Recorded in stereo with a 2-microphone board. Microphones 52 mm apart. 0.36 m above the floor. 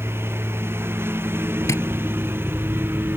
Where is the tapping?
80° left.